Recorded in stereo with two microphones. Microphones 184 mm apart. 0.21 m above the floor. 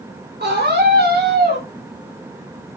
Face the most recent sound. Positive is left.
turn(degrees=-50)  # may be behind; listen again after turning